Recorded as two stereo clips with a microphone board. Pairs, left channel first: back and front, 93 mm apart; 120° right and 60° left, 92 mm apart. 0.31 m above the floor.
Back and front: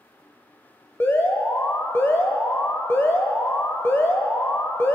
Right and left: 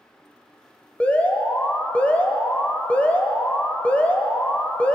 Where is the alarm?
175° right, 1.2 m.